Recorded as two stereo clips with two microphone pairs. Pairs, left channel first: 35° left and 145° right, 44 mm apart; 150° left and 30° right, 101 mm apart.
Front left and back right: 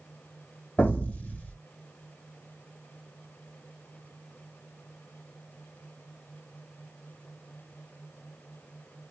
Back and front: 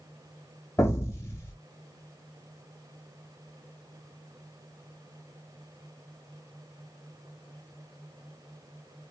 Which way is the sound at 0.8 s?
95° left.